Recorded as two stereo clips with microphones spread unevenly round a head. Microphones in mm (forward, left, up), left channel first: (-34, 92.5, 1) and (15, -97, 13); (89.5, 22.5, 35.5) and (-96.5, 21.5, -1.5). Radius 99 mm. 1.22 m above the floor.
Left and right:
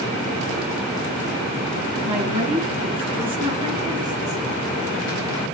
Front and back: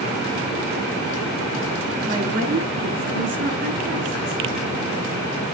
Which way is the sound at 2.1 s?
135° right.